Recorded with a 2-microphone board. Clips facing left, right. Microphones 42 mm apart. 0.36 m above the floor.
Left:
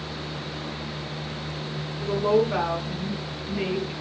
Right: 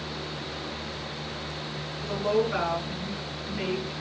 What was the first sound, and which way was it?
A woman speaking, 25° left (ahead or behind).